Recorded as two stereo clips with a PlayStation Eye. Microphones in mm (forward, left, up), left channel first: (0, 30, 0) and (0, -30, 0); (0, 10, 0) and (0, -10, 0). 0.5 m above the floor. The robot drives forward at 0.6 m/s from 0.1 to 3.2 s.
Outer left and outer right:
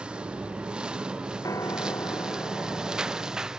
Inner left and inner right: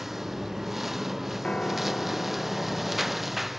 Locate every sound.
0.0 s a lawn mower: 15° right (ahead or behind); by 3.6 s 10° right (ahead or behind)
1.4 s a piano: 75° left (ahead or behind); by 3.5 s 80° left